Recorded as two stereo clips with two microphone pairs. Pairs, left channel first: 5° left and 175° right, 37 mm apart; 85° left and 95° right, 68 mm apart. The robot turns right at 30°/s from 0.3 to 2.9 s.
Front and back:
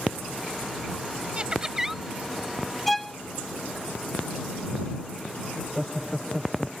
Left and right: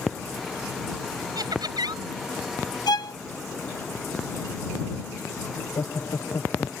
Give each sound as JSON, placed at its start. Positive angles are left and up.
{"t": 1.4, "sound": "laughter", "azimuth_deg": -110}
{"t": 2.9, "sound": "a violin", "azimuth_deg": 90}
{"t": 5.5, "sound": "laughter", "azimuth_deg": 100}